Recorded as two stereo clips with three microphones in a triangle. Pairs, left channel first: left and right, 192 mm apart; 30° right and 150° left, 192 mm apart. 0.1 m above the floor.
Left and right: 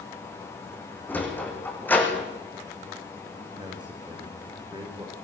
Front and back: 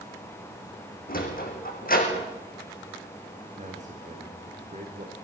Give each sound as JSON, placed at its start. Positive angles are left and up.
{"t": 1.1, "sound": "a sliding door", "azimuth_deg": 10, "distance_m": 6.0}
{"t": 3.6, "sound": "a man speaking", "azimuth_deg": -155, "distance_m": 6.5}